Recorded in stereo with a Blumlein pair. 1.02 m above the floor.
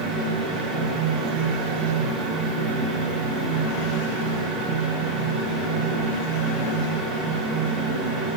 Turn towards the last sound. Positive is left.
turn(degrees=-25)